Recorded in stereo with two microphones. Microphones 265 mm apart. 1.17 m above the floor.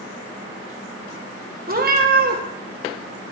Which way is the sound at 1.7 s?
35° right (ahead or behind).